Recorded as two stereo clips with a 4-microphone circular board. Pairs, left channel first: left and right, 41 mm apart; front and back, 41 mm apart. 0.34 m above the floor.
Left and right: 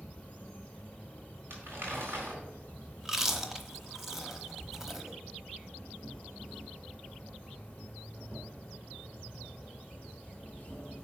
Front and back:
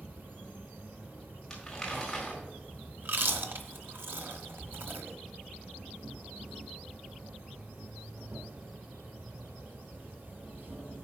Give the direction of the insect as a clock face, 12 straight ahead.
7 o'clock.